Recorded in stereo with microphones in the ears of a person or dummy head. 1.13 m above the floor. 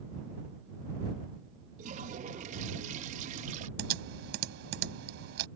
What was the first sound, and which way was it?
A toilet flushing, 40° right (ahead or behind).